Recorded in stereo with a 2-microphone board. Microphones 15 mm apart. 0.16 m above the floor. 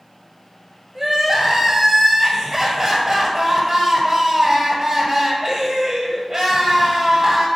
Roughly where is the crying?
Right.